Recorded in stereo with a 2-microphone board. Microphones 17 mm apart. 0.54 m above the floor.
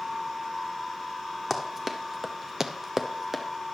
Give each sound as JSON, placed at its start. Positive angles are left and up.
{"t": 1.5, "sound": "running footsteps", "side_deg": -20, "distance_m": 1.2}